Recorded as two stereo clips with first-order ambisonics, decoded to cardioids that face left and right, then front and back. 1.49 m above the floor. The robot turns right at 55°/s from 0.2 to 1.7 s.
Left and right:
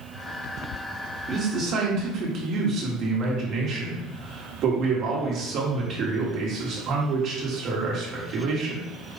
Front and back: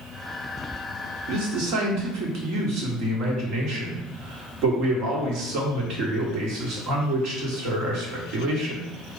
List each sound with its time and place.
1.3 s a man speaking: 165° right, 1.4 m; by 8.8 s 145° right, 1.4 m